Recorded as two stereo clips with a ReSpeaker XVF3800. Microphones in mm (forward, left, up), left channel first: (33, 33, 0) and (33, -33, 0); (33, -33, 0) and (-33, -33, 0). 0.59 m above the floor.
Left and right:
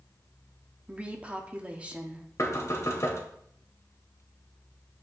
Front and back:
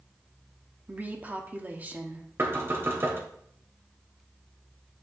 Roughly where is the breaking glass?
No breaking glass in this recording.